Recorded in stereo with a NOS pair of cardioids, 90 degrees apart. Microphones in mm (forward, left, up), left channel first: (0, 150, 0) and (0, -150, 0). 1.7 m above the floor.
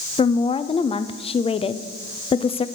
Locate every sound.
0.2 s a woman speaking: 20° left, 0.5 m